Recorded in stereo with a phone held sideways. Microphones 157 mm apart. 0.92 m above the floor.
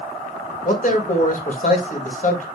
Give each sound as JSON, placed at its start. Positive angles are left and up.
{"t": 0.7, "sound": "a man speaking", "side_deg": 55, "distance_m": 1.4}